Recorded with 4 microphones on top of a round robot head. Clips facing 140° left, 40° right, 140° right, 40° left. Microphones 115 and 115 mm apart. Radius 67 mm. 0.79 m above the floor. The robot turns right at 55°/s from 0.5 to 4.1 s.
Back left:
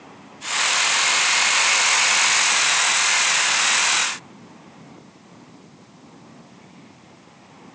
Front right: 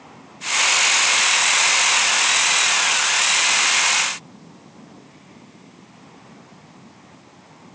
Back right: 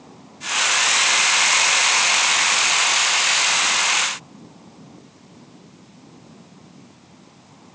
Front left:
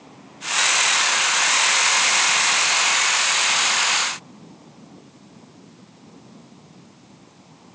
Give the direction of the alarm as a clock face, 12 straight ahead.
I don't hear an alarm.